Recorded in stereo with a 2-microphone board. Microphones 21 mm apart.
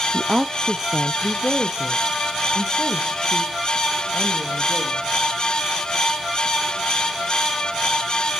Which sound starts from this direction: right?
A woman speaking, at 0.1 s.